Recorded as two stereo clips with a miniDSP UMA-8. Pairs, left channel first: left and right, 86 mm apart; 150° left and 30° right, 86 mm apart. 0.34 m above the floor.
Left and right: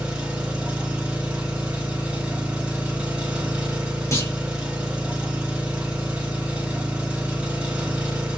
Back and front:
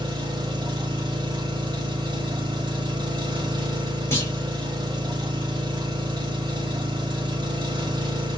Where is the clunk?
105° left, 1.4 m.